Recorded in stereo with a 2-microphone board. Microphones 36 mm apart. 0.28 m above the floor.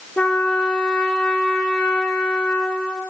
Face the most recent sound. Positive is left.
turn(degrees=30)  # may be behind; listen again after turning